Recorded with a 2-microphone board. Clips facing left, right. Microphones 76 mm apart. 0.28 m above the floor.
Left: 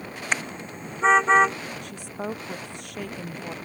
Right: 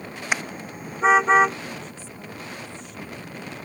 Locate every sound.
0.3 s a car horn: 10° right (ahead or behind); by 1.6 s 5° right (ahead or behind)
1.8 s a woman speaking: 70° left (ahead or behind)